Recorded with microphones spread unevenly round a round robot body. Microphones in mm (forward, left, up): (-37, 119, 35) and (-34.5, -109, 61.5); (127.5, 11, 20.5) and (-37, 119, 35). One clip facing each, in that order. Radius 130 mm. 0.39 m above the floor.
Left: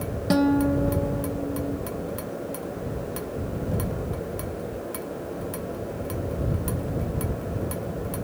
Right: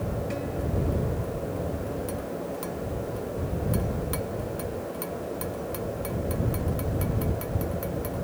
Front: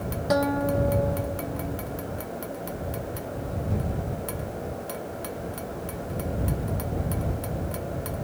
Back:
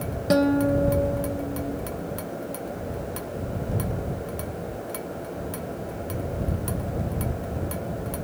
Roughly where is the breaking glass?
I don't hear breaking glass.